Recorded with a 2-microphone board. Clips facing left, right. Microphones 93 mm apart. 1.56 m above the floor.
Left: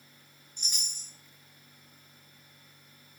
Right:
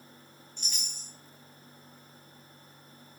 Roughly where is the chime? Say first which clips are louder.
Even; centre.